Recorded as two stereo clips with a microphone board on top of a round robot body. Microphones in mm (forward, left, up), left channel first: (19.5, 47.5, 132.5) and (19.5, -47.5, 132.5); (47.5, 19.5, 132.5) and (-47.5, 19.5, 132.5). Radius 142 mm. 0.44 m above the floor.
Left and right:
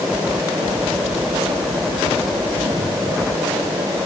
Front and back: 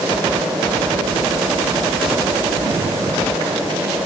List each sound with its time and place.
Only background noise.